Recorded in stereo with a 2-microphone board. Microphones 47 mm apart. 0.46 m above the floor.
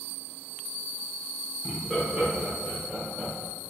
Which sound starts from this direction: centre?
Laughter, at 1.6 s.